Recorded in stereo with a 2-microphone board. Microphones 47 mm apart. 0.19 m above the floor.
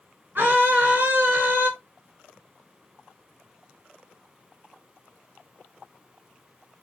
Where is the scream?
50° right (ahead or behind), 2 m.